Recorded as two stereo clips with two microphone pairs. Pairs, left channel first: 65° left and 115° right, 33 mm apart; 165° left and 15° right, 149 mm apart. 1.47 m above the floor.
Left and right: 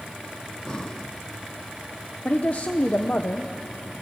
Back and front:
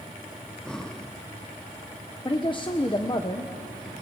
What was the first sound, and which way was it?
Breathing, 85° left.